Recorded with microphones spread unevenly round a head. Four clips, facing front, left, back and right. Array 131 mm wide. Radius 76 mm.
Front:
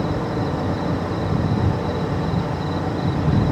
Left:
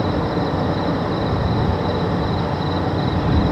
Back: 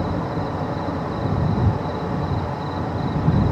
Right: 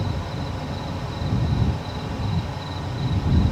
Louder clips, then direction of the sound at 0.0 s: Left 11 dB, front 2 dB; 70° left.